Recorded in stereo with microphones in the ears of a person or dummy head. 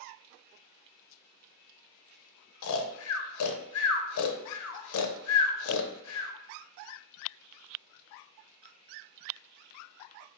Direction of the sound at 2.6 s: 75° left (ahead or behind).